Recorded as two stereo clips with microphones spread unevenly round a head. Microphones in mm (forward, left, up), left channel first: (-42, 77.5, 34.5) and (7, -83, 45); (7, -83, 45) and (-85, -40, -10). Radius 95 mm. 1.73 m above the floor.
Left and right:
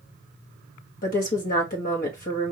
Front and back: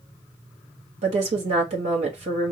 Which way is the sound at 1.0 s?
145° left.